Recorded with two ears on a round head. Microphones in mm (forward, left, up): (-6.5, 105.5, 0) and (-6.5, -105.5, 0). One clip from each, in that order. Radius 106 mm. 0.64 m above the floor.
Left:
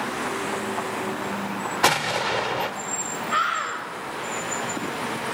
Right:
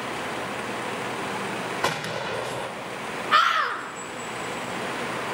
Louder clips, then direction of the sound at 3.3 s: Right 4 dB; 40° right (ahead or behind).